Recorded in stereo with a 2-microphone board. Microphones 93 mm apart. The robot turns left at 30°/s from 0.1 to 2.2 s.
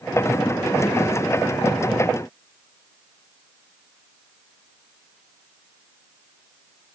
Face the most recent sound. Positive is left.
No sound to turn to.